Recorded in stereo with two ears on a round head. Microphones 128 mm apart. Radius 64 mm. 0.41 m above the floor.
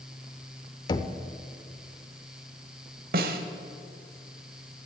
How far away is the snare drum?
About 1.0 m.